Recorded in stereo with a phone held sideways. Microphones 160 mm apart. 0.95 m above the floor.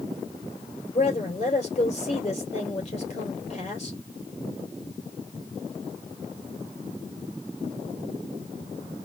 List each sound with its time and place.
0.9 s a woman speaking: 40° left (ahead or behind), 3.5 m